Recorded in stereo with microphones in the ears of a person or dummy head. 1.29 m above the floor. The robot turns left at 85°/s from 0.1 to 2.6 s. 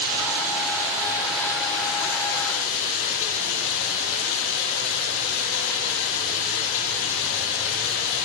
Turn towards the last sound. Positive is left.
turn(degrees=75)